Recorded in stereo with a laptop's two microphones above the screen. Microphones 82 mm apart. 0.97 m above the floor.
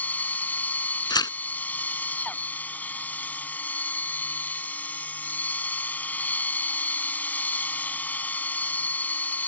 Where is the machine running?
20° left (ahead or behind).